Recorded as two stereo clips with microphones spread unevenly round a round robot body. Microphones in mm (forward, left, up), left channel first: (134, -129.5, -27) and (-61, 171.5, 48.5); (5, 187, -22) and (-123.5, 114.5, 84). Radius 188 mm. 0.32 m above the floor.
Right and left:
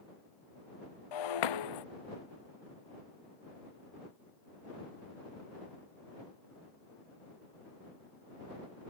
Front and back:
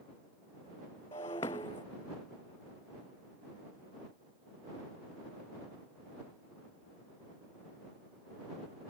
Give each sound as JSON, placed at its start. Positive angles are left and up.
{"t": 1.1, "sound": "breaking glass", "azimuth_deg": -45}